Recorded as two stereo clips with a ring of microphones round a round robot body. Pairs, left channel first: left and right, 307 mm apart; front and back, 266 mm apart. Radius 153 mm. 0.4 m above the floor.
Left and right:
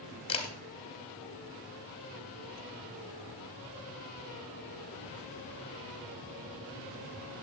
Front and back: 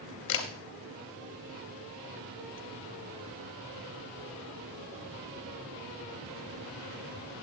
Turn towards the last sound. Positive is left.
turn(degrees=15)